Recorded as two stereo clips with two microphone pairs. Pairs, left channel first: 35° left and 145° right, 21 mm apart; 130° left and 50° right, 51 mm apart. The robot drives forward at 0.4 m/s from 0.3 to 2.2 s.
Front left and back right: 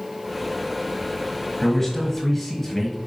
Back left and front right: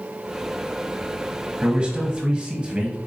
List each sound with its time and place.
1.6 s a man speaking: 10° right, 1.7 m; by 3.0 s 15° right, 1.6 m